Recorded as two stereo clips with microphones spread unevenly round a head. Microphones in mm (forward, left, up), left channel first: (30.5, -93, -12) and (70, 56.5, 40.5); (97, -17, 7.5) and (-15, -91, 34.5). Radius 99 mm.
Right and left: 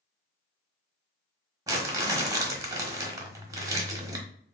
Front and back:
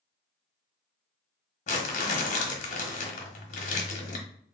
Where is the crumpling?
50° left, 1.2 m.